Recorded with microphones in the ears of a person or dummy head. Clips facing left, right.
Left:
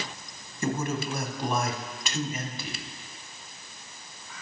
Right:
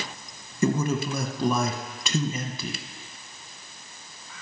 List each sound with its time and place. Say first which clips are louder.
0.6 s a man speaking: right 5 dB; 75° right (ahead or behind), 0.9 m